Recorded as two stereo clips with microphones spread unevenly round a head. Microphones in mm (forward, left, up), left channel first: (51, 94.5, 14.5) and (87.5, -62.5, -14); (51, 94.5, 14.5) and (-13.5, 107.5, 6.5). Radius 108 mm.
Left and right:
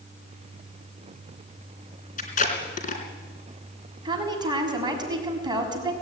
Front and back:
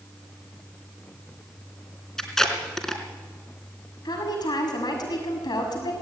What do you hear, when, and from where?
2.2 s tape being pulled: 70° left, 3.5 m
4.0 s a woman speaking: 10° right, 6 m